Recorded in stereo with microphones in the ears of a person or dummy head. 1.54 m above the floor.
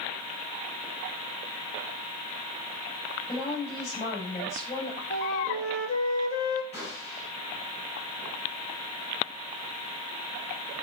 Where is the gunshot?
30° left (ahead or behind), 7.5 m.